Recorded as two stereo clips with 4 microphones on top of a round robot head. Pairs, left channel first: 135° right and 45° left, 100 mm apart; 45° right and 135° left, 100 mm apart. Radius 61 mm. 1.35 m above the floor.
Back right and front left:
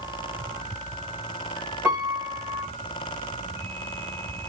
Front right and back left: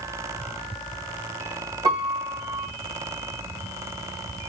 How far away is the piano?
About 1.2 m.